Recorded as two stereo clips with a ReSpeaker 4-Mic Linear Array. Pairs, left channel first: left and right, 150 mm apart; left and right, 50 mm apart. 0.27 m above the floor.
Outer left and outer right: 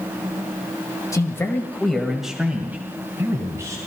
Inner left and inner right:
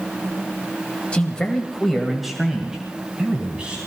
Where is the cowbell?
I don't hear a cowbell.